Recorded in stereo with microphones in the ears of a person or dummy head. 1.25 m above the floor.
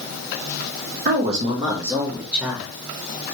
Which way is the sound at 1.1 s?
50° right (ahead or behind).